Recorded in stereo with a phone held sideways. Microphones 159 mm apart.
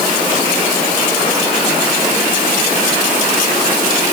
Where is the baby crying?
No baby crying in this recording.